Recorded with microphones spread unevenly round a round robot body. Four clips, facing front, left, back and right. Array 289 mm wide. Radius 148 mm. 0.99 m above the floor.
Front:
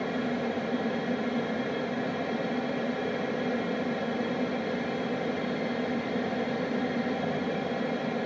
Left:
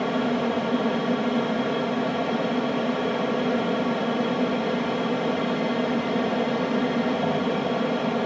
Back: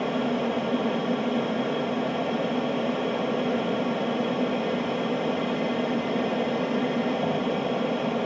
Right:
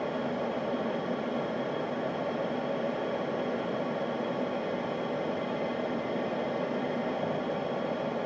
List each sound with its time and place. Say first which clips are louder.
0.0 s an aircraft: left 8 dB, back 4 dB; 105° left